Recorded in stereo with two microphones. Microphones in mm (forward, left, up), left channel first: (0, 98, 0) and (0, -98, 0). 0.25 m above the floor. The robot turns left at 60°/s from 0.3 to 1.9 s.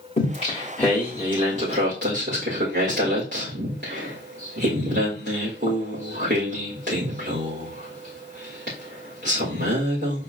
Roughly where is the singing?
Left.